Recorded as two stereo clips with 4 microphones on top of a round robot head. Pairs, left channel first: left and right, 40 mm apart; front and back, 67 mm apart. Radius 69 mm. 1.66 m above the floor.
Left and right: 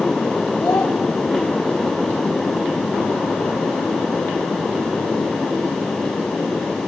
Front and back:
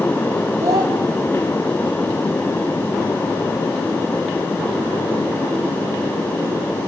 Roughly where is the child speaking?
Behind left.